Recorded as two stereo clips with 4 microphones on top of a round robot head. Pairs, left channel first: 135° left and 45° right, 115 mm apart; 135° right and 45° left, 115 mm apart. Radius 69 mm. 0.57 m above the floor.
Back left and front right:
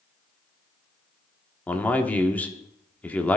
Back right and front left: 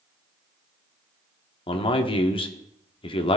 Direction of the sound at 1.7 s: 150° right.